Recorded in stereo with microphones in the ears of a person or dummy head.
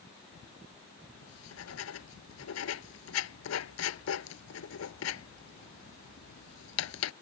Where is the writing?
85° left.